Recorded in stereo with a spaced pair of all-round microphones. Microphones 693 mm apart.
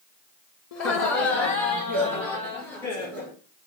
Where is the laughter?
65° left (ahead or behind), 0.6 m; by 3.3 s 20° left (ahead or behind), 3 m.